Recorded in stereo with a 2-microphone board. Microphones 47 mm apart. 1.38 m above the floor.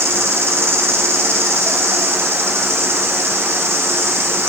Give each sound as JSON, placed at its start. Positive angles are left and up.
{"t": 0.0, "sound": "an insect", "side_deg": -65, "distance_m": 9.0}